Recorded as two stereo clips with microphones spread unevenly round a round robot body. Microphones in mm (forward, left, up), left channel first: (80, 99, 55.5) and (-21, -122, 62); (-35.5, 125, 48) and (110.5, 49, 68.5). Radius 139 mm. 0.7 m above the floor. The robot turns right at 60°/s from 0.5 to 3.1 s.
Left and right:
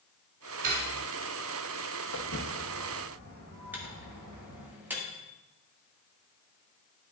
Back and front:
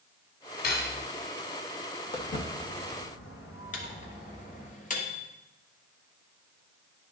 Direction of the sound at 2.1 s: 95° left.